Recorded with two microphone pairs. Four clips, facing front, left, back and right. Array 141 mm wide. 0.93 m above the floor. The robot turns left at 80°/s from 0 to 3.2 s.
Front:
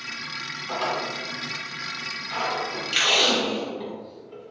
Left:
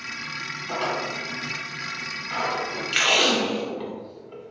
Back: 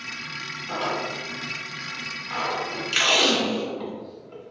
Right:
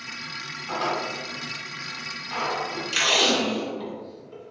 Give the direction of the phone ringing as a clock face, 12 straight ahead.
I don't hear a phone ringing.